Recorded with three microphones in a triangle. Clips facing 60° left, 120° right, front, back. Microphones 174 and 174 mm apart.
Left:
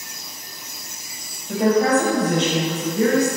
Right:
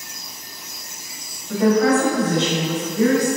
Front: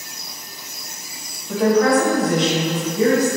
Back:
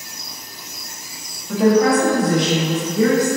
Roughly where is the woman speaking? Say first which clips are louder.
Right 1 dB, back 1 dB; left.